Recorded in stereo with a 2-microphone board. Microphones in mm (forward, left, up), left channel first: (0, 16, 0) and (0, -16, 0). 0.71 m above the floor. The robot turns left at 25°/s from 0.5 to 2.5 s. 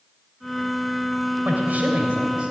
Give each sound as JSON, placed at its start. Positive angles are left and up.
{"t": 1.4, "sound": "a man speaking", "side_deg": -60, "distance_m": 2.5}